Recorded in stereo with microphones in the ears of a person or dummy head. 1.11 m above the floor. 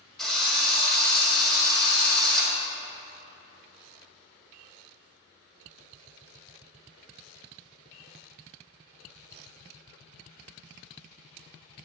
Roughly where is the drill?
Centre.